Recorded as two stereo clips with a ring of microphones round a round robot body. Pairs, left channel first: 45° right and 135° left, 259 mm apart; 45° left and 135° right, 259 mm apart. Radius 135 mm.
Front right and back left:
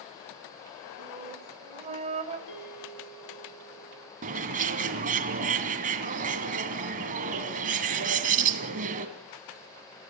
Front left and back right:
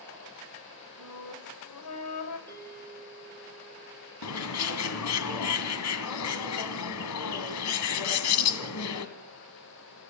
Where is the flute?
70° left, 2.5 m.